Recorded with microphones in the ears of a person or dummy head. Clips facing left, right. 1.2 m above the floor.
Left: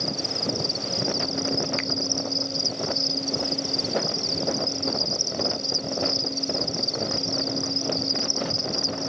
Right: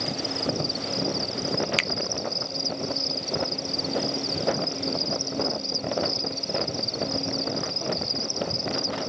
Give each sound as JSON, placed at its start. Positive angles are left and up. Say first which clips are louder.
{"t": 0.0, "sound": "an insect", "louder": "right 1 dB", "side_deg": 10}
{"t": 1.8, "sound": "a finger snap", "louder": "left 2 dB", "side_deg": -45}